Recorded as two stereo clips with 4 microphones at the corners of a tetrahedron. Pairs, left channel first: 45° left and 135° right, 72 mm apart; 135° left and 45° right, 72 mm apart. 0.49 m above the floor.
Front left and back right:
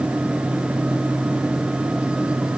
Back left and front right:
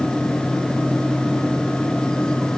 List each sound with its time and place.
Only background noise.